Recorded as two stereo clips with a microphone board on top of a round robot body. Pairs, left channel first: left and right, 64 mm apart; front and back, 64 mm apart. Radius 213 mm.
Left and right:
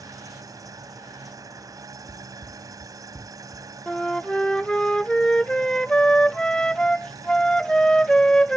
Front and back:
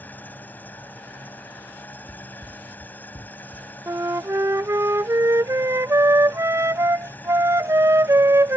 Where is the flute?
165° left.